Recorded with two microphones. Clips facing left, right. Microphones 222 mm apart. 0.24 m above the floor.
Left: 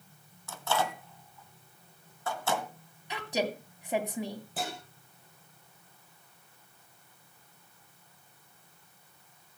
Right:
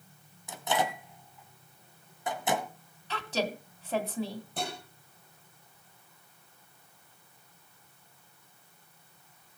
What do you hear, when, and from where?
0.5 s a microwave: 15° right (ahead or behind), 1.5 m
3.1 s a woman speaking: 15° left (ahead or behind), 2 m
4.6 s dishes clattering: 5° left (ahead or behind), 5 m